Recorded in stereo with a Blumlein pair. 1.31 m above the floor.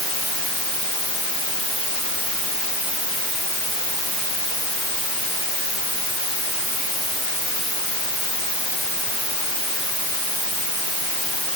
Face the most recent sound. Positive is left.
No sound to turn to.